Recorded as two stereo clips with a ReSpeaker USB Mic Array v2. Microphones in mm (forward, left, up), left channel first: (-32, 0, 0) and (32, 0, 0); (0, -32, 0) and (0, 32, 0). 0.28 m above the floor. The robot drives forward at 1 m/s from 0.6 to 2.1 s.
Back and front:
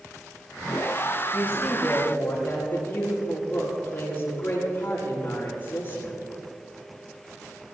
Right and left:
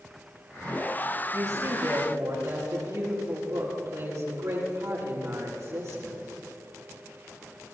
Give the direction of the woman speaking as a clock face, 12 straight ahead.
8 o'clock.